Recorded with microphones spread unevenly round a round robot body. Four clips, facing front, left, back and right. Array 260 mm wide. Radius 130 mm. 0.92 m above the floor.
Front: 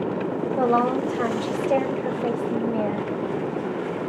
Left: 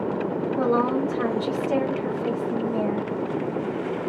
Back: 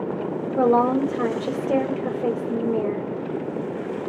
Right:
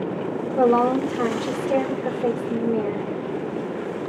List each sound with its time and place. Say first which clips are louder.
0.6 s a woman speaking: right 5 dB, back 3 dB; 155° right, 2.5 m